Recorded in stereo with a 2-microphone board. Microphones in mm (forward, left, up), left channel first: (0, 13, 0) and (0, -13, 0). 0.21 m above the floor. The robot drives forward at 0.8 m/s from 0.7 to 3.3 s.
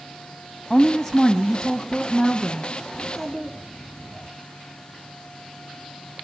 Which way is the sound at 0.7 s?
30° left (ahead or behind).